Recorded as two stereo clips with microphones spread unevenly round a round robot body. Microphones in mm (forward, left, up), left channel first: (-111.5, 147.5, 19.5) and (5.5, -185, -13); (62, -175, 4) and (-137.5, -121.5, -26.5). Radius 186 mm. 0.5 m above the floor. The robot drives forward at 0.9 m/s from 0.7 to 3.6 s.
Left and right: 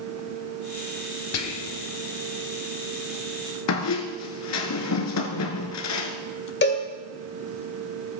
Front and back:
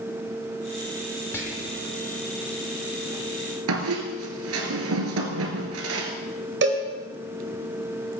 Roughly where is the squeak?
Behind left.